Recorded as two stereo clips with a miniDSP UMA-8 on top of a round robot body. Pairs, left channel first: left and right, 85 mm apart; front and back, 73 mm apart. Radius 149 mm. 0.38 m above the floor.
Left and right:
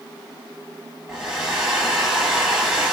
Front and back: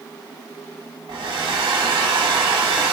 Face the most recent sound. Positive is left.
turn(degrees=-170)